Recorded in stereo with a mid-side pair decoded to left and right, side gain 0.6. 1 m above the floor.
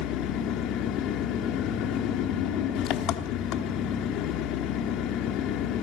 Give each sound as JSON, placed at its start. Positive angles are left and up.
{"t": 0.0, "sound": "an engine running", "azimuth_deg": 65, "distance_m": 1.3}